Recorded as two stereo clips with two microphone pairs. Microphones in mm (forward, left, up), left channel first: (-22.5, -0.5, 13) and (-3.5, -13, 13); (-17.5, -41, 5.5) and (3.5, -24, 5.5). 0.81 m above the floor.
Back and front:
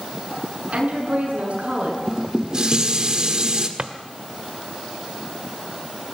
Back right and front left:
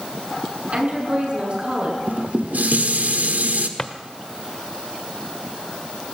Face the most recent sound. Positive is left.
turn(degrees=-80)